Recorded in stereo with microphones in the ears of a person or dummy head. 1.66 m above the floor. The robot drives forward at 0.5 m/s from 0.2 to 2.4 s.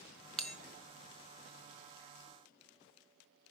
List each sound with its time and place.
0.4 s a bell: centre (ahead or behind), 0.6 m